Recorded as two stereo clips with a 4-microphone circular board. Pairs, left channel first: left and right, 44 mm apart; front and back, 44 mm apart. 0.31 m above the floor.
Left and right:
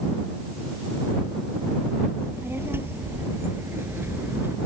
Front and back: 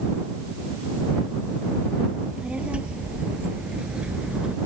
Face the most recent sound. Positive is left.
turn(degrees=-115)